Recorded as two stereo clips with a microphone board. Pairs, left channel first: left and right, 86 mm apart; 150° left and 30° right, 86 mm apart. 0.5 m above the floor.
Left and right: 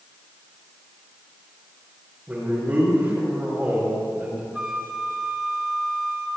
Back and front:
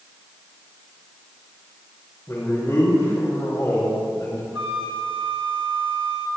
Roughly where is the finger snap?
I don't hear a finger snap.